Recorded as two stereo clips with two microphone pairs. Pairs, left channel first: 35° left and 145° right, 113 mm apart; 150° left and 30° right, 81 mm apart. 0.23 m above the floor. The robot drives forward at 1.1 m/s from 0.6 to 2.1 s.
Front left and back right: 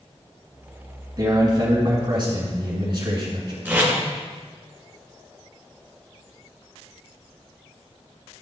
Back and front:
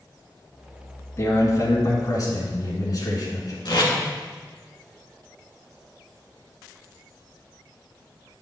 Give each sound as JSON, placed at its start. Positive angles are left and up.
{"t": 1.2, "sound": "a man speaking", "azimuth_deg": 180, "distance_m": 1.7}
{"t": 3.6, "sound": "tape being pulled", "azimuth_deg": 145, "distance_m": 2.5}